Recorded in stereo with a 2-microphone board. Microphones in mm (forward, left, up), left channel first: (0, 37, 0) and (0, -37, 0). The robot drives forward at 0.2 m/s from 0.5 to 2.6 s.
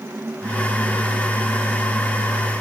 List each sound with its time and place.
Only background noise.